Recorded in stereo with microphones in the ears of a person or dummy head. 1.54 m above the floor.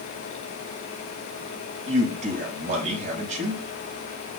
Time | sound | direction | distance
1.9 | a man speaking | 45° right (ahead or behind) | 7.5 m